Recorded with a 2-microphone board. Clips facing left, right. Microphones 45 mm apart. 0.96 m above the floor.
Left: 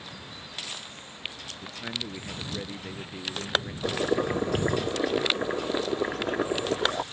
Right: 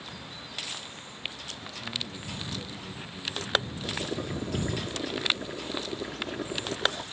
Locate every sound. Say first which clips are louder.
1.6 s a man speaking: left 2 dB; 35° left (ahead or behind)
3.8 s boiling: left 7 dB; 45° left (ahead or behind)